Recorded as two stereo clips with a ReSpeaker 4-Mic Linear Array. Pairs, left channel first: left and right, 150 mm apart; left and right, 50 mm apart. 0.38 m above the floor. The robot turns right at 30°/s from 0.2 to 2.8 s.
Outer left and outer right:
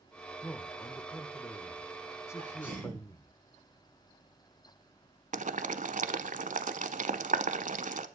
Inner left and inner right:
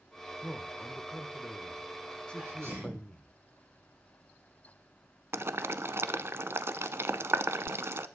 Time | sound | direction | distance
0.4 | a man speaking | 15° left (ahead or behind) | 0.8 m
2.4 | a sneeze | 55° right (ahead or behind) | 7.5 m
5.3 | boiling | 60° right (ahead or behind) | 0.7 m